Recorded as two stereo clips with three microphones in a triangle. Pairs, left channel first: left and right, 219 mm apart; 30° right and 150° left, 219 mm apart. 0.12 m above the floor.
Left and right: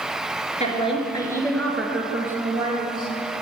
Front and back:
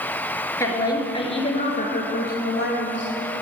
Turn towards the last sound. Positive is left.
turn(degrees=-30)